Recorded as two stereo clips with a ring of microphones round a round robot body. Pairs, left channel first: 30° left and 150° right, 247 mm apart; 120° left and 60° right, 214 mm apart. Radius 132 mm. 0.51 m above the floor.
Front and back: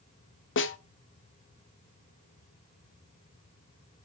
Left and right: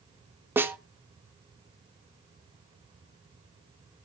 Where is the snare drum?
20° left, 1.5 m.